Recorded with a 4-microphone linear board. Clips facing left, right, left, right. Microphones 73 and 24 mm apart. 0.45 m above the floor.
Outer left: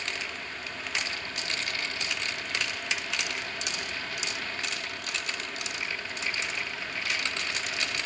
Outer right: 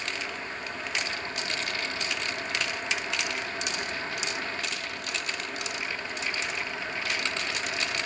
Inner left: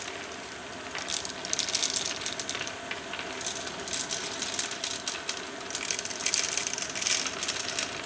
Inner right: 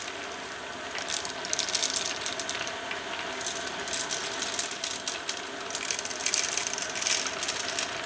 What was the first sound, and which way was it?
Only background noise.